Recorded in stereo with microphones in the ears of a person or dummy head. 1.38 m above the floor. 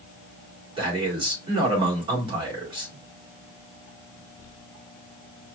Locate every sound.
0.8 s a man speaking: 25° right (ahead or behind), 1.9 m